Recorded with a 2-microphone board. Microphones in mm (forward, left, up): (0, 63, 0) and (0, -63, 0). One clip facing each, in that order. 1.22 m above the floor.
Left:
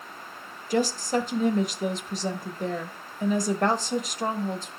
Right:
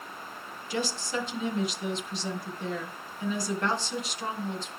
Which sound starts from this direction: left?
A woman speaking, at 0.7 s.